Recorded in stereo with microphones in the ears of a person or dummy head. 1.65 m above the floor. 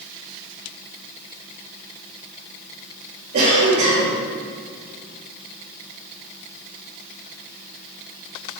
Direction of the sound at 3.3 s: 50° right (ahead or behind).